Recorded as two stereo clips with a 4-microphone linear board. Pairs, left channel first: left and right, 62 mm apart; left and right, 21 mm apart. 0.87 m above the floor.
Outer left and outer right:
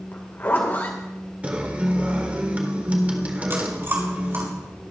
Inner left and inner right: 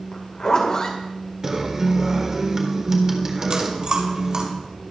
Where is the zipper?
35° left (ahead or behind), 2.5 m.